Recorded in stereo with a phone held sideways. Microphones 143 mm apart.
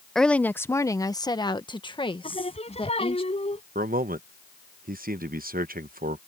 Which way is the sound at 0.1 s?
Centre (ahead or behind).